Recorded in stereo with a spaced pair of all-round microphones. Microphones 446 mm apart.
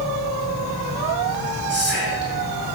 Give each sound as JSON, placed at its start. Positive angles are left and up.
{"t": 0.0, "sound": "an insect", "side_deg": 0, "distance_m": 7.0}
{"t": 1.7, "sound": "whispering", "side_deg": -25, "distance_m": 8.5}